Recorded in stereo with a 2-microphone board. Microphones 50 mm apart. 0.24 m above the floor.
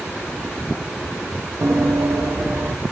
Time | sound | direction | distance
1.6 | running footsteps | 75° right (ahead or behind) | 0.6 m